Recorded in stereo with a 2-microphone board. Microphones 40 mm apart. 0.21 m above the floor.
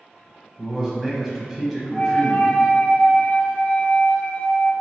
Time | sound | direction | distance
0.6 | a man speaking | 5° right (ahead or behind) | 1.0 m
1.9 | a flute | 35° left (ahead or behind) | 0.7 m